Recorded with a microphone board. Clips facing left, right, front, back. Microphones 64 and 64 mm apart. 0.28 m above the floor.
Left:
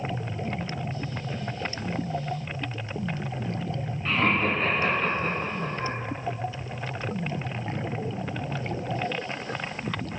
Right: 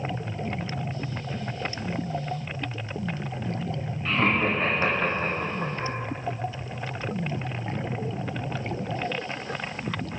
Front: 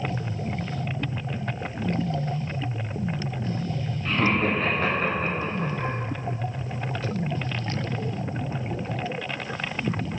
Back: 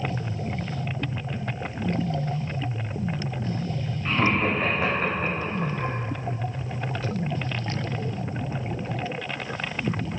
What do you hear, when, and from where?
4.0 s laughter: 170° left, 0.9 m; by 5.9 s 90° right, 1.8 m